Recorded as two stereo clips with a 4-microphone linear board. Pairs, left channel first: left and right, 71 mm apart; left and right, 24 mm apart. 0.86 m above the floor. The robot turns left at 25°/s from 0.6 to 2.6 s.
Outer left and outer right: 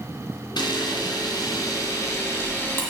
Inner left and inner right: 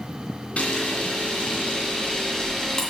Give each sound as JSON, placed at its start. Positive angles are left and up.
{"t": 0.6, "sound": "a camera shutter", "azimuth_deg": 80, "distance_m": 2.0}